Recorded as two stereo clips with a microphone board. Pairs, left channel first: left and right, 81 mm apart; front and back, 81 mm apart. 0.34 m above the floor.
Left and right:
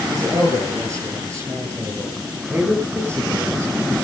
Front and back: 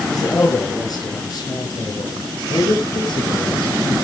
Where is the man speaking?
40° right, 8.5 m; by 4.0 s 30° right, 9 m.